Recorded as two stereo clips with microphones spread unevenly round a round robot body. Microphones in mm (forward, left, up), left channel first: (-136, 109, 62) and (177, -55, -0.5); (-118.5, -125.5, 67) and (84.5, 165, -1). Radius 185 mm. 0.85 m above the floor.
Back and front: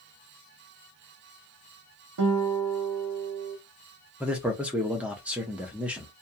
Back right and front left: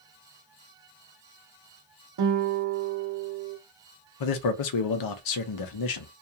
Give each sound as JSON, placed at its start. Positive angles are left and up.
{"t": 2.2, "sound": "a guitar", "azimuth_deg": 15, "distance_m": 0.9}
{"t": 4.2, "sound": "a man speaking", "azimuth_deg": -105, "distance_m": 0.6}